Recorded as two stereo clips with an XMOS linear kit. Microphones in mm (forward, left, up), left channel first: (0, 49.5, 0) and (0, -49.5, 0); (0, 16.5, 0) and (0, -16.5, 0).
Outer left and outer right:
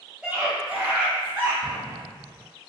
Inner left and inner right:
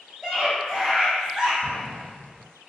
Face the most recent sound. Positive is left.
turn(degrees=40)  # may be behind; listen again after turning